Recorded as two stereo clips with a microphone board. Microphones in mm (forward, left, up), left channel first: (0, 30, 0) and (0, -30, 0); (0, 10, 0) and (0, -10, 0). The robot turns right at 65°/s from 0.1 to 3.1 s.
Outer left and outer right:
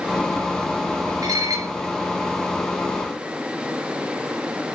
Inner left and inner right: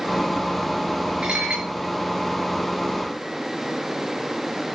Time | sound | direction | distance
1.2 | dishes clattering | 110° right | 7.5 m